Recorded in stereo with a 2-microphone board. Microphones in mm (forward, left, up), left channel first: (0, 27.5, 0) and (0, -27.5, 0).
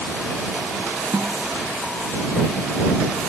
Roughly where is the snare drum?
Right.